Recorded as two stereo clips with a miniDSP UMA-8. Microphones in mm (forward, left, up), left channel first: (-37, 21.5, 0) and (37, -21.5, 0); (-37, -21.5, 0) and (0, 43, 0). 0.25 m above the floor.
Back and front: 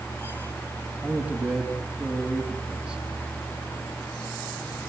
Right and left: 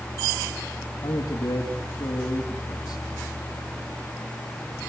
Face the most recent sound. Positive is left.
turn(degrees=-120)